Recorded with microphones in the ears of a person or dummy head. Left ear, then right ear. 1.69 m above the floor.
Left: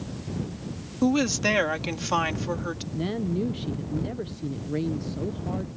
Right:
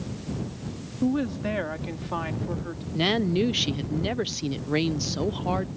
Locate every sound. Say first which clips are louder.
1.0 s a woman speaking: left 4 dB; 75° left (ahead or behind); by 2.8 s 80° left
2.9 s a woman speaking: right 8 dB; 35° right (ahead or behind)